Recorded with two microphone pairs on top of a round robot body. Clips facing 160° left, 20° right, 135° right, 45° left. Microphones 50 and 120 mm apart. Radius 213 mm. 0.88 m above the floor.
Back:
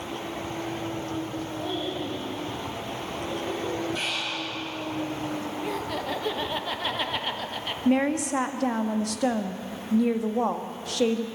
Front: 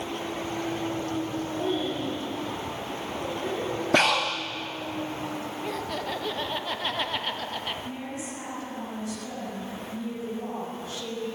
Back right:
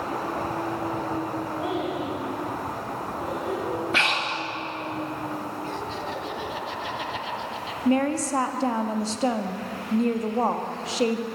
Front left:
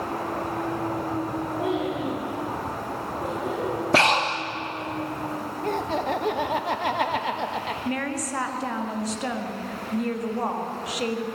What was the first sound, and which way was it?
A child speaking, 15° right.